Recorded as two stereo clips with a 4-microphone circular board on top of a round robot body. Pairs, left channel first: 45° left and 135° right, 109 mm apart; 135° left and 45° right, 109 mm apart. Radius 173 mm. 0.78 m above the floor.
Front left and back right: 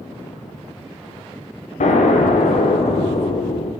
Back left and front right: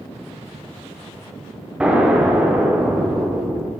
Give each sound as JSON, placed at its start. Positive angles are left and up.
{"t": 1.8, "sound": "an explosion", "azimuth_deg": 35, "distance_m": 1.2}